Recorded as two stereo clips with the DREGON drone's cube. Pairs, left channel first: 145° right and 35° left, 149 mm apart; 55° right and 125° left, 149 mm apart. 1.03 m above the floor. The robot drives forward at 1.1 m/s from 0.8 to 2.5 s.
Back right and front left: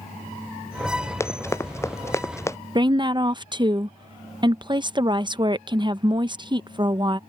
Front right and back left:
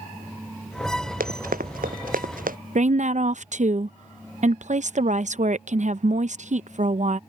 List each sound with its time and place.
1.2 s running footsteps: 140° left; by 2.6 s 145° left
2.8 s a woman speaking: 90° left